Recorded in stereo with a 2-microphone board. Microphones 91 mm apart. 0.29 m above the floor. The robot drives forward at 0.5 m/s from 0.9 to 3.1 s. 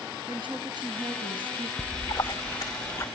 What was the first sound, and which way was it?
A woman speaking, 55° right (ahead or behind).